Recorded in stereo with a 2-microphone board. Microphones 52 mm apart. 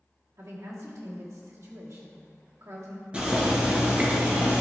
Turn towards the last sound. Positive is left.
turn(degrees=-20)  # may be behind; listen again after turning